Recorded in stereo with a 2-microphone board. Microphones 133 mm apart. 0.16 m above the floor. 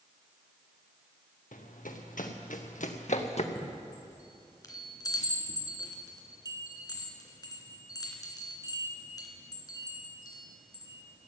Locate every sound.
1.5 s running footsteps: 80° left, 2.5 m; by 3.5 s 55° left (ahead or behind), 1.6 m
3.5 s a chime: 30° left (ahead or behind), 2.5 m